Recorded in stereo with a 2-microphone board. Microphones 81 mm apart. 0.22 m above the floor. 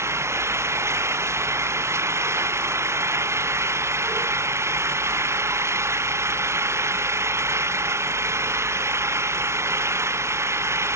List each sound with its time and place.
0.0 s an engine running: 30° right (ahead or behind)